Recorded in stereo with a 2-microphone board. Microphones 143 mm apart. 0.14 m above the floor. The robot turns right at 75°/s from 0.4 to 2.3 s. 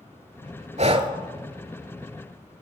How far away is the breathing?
About 0.6 m.